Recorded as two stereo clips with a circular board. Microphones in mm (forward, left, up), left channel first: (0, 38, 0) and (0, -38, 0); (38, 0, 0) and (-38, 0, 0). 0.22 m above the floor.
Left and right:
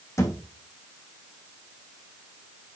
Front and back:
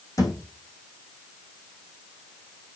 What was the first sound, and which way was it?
A thud, 40° left.